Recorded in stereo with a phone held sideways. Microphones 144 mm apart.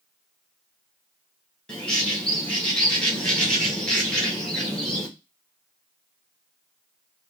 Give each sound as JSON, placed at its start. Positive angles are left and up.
{"t": 1.7, "sound": "a bird", "side_deg": 5, "distance_m": 1.2}